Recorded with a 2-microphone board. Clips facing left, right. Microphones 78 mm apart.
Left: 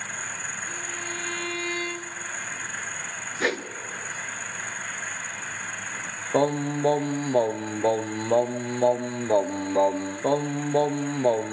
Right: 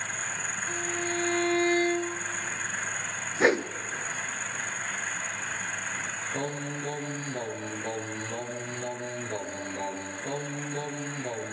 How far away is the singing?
About 1.0 m.